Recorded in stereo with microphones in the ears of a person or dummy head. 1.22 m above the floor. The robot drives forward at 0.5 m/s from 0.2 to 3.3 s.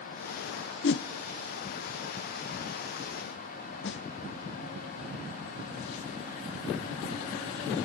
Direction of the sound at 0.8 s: 55° left (ahead or behind).